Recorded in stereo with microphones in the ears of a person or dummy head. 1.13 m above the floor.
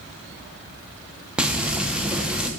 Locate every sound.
1.4 s frying: 5° right (ahead or behind), 0.6 m